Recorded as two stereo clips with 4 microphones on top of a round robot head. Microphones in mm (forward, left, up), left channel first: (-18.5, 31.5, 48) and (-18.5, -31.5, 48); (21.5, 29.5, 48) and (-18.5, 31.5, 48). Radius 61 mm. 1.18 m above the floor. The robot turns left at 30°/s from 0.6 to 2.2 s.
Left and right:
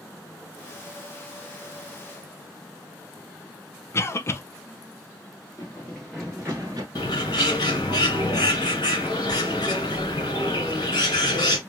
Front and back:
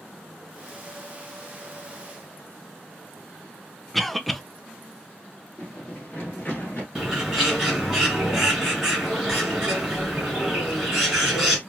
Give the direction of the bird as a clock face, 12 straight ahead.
9 o'clock.